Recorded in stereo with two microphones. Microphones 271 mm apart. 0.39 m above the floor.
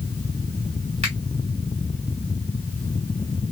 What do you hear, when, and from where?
1.0 s a finger snap: 25° right (ahead or behind), 1.8 m